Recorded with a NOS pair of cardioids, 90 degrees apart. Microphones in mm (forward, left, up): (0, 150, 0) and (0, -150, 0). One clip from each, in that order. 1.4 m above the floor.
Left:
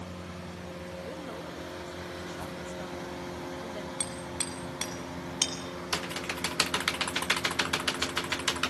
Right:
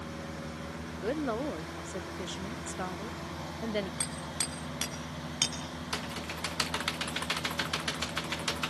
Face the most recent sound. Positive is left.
turn(degrees=25)